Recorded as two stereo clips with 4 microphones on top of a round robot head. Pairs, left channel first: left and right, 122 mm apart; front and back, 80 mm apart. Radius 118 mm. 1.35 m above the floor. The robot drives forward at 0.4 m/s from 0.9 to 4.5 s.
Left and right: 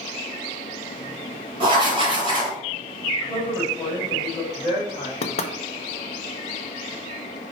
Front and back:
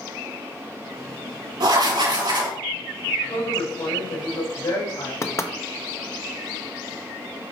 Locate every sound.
1.6 s writing: 140° right, 2 m; by 2.6 s 145° right, 2.5 m
3.2 s a woman speaking: 25° left, 3.5 m; by 5.1 s 30° left, 3 m
5.2 s knocking: 55° left, 0.8 m